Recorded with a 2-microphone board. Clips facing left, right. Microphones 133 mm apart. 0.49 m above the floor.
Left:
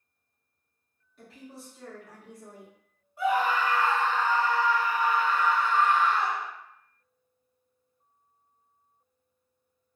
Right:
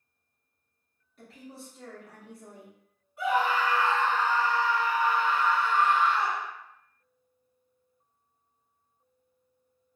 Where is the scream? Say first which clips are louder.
Left 1 dB; 35° left (ahead or behind), 1.5 m.